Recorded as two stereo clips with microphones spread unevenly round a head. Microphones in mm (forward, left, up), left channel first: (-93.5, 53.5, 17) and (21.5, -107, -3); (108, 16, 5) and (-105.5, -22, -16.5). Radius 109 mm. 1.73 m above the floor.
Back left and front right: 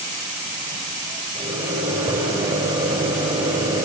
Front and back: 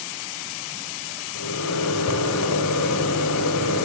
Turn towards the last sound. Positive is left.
turn(degrees=20)